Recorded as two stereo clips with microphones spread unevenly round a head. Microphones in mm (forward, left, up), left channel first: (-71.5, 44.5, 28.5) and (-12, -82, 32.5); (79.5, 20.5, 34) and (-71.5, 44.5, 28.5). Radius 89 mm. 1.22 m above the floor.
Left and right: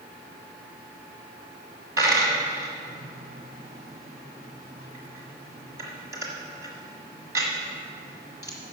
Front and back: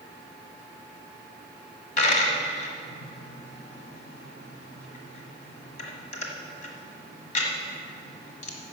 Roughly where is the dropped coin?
Ahead.